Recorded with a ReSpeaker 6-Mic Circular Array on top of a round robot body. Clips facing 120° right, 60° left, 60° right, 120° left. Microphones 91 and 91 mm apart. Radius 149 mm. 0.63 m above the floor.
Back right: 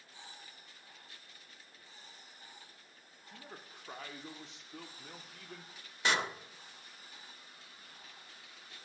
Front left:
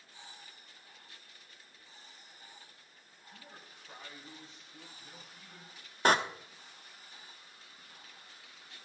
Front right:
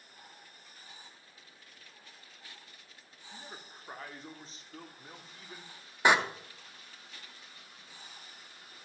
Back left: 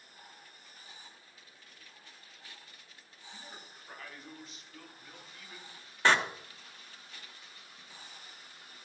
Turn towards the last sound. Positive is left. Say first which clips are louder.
# front left 7 dB, front right 1 dB
turn(degrees=15)